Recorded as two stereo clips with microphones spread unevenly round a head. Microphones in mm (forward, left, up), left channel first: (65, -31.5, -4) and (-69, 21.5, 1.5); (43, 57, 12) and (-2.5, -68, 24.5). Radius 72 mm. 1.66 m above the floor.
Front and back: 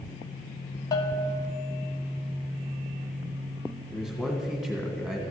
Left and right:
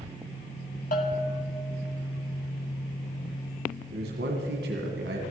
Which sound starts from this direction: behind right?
A man speaking, at 3.9 s.